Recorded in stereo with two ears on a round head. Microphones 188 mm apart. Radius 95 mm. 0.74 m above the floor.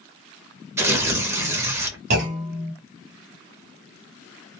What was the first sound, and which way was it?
Tearing paper, 15° right (ahead or behind).